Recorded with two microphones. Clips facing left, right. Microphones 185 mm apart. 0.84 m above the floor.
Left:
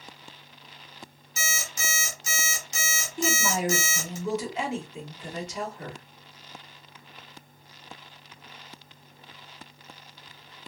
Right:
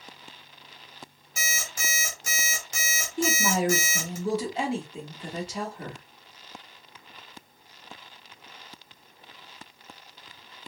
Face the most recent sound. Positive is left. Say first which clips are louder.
# right 2 dB
turn(degrees=-30)  # may be behind; listen again after turning